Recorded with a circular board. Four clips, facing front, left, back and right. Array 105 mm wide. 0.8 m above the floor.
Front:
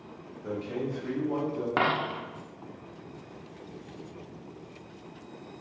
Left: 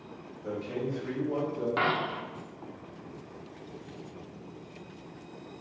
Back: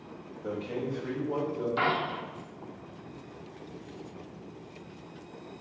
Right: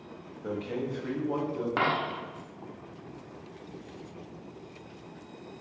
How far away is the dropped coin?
About 0.6 m.